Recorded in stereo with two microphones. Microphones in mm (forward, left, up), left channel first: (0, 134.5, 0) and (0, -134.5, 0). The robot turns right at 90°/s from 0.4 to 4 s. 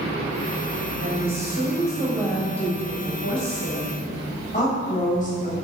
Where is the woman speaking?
120° right, 4 m; by 5.5 s 150° left, 4 m.